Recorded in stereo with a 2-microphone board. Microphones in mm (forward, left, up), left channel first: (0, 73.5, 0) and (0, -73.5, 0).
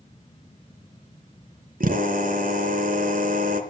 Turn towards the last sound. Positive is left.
turn(degrees=-75)  # may be behind; listen again after turning